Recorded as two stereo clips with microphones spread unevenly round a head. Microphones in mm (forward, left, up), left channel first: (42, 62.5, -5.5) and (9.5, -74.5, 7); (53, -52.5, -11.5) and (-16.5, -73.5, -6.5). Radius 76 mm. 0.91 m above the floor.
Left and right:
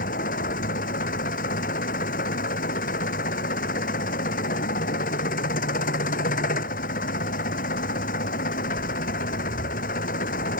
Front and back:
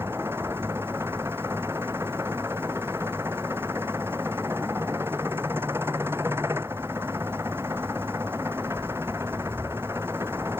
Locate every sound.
0.0 s an engine running: 120° left